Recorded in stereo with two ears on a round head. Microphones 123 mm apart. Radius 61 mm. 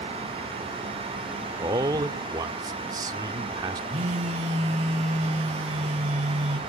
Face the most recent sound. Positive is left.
turn(degrees=-50)  # may be behind; listen again after turning